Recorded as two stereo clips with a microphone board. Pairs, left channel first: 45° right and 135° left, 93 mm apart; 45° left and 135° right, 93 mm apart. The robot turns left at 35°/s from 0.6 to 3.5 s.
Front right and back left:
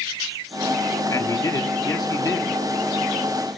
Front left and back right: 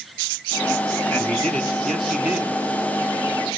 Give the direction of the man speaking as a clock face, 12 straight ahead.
1 o'clock.